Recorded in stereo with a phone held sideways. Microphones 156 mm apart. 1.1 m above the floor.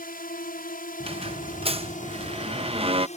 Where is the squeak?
40° right (ahead or behind).